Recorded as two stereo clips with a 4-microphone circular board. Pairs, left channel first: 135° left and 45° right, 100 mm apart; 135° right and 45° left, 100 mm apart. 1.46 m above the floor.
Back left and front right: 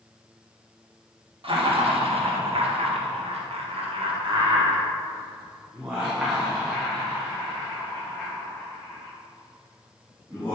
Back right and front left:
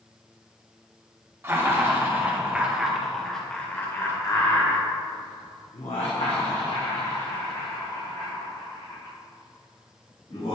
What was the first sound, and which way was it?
Laughter, 20° right.